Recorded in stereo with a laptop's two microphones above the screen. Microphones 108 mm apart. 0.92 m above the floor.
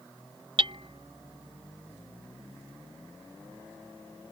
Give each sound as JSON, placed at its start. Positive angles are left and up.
{"t": 0.6, "sound": "hammering", "side_deg": -60}